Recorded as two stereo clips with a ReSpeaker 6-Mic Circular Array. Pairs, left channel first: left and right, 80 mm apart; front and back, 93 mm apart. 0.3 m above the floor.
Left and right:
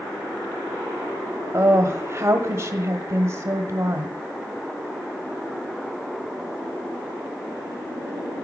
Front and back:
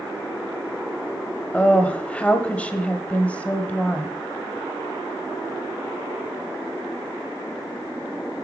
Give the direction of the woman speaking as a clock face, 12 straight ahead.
2 o'clock.